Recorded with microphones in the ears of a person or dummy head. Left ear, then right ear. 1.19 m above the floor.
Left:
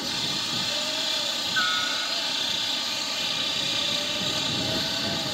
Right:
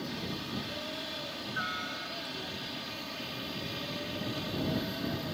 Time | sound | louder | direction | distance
0.0 | a helicopter | left 11 dB | 40° left (ahead or behind) | ?